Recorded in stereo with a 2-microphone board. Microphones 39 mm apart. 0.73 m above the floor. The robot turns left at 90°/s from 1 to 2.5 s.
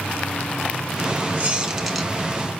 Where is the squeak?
135° right, 1.8 m; by 2.1 s 160° left, 1.8 m.